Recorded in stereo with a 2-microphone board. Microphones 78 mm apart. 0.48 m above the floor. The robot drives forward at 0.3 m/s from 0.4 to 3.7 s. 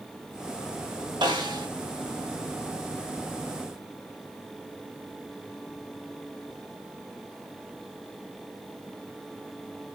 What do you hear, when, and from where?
1.2 s a snare drum: 70° right (ahead or behind), 0.9 m